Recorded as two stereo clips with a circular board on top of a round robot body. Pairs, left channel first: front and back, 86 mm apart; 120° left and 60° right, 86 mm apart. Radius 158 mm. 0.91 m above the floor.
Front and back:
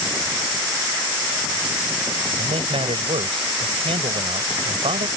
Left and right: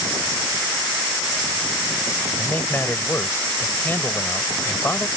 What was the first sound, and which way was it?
A man speaking, 175° right.